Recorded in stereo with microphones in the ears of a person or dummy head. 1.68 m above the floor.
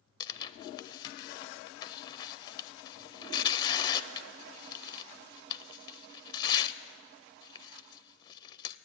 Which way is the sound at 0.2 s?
20° left (ahead or behind).